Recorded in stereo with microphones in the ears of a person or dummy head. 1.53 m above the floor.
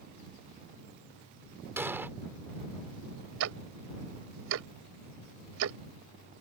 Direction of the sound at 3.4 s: 70° right (ahead or behind).